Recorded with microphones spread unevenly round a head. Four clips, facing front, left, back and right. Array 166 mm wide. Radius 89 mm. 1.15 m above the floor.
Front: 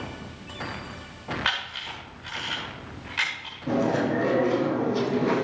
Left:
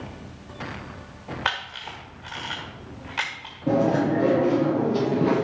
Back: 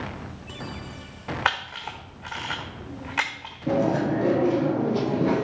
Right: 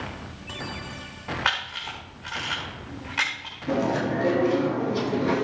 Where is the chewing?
120° left, 5 m.